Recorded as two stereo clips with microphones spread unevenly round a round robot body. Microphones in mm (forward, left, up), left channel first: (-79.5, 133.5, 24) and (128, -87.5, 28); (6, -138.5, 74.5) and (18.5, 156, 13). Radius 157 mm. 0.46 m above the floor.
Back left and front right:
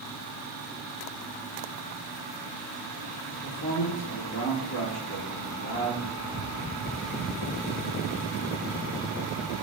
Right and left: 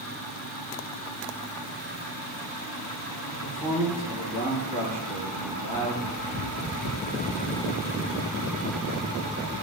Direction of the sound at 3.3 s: 175° right.